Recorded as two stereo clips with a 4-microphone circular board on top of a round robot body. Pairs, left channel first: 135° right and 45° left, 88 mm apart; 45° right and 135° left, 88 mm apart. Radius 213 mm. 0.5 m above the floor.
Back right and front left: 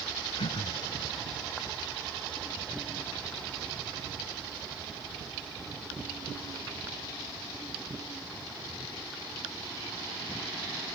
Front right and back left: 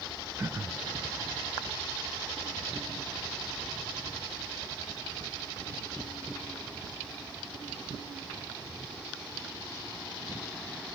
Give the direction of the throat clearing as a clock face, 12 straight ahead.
5 o'clock.